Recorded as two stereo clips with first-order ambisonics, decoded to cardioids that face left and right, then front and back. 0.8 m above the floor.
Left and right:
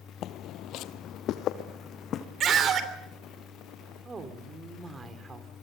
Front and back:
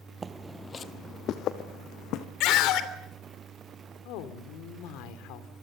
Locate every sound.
0.2 s footsteps: 110° left, 1.0 m; by 2.3 s 35° left, 2.5 m
2.4 s a scream: 35° right, 3 m
4.0 s a woman speaking: 20° right, 2.5 m